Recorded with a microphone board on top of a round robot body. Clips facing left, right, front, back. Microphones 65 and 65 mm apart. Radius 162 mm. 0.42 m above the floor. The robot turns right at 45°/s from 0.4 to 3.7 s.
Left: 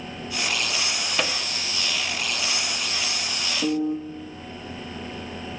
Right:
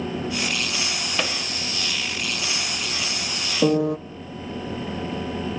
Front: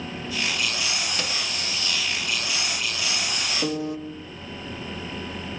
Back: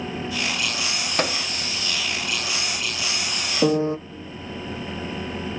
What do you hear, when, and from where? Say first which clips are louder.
1.2 s a microwave: even, back 6 dB; straight behind, 1.2 m; by 1.4 s 170° right, 1.2 m
3.6 s a piano: right 5 dB, back 9 dB; 120° right, 0.7 m